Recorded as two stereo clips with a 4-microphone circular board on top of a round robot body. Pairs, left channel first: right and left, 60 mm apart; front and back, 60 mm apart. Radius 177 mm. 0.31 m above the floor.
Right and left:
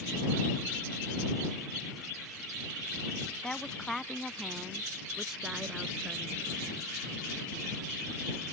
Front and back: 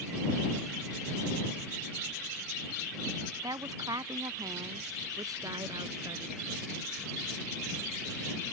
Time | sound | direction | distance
3.4 | a woman speaking | 165° right | ?